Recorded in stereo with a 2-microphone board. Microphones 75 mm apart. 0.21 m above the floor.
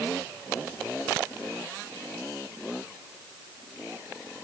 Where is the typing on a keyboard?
I don't hear typing on a keyboard.